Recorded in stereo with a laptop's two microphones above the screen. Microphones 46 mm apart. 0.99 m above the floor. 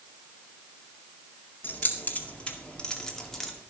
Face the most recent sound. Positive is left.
turn(degrees=0)  # may be behind; listen again after turning